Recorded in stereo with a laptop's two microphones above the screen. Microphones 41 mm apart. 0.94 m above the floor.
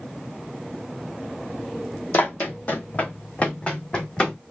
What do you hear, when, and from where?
2.1 s running footsteps: 50° left (ahead or behind), 1.7 m; by 4.4 s 20° left (ahead or behind), 2 m